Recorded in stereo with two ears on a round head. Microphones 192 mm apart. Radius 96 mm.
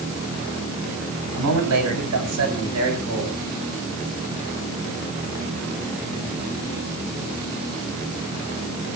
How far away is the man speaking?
About 8 m.